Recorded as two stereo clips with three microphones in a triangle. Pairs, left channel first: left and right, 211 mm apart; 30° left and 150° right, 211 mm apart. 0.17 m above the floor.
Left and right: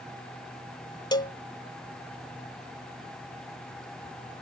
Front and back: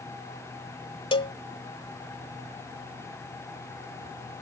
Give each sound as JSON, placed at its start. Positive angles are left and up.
{"t": 1.1, "sound": "a cowbell", "azimuth_deg": 50}